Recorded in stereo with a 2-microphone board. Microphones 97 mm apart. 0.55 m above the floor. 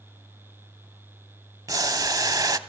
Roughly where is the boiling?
Right.